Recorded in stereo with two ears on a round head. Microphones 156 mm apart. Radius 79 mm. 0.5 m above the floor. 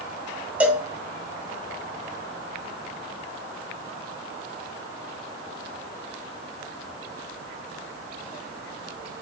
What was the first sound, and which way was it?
A cowbell, 10° right (ahead or behind).